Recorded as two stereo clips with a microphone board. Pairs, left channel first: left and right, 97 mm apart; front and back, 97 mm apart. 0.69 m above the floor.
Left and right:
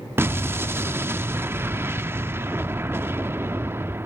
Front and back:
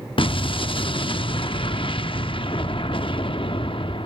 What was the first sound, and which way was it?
An explosion, 25° right.